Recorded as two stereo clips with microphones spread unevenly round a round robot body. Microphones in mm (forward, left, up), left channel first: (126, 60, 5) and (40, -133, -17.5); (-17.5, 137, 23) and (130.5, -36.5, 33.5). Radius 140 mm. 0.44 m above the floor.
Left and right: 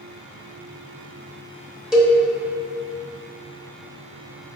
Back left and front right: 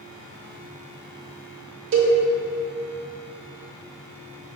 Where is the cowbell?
30° right, 1.0 m.